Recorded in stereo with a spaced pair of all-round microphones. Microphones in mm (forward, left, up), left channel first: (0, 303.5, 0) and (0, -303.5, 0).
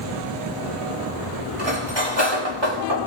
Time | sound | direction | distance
1.6 | cutlery clinking | 45° right (ahead or behind) | 4 m